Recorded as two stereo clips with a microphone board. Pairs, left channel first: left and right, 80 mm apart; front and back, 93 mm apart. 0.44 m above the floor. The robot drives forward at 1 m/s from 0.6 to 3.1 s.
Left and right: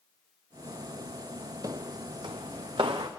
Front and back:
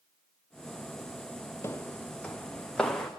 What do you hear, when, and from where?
1.6 s footsteps: 55° right, 0.7 m; by 3.1 s 85° right, 2.5 m